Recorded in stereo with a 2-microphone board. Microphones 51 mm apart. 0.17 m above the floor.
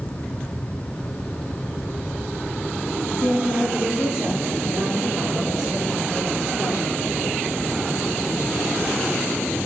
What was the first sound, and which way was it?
A woman speaking, 65° left (ahead or behind).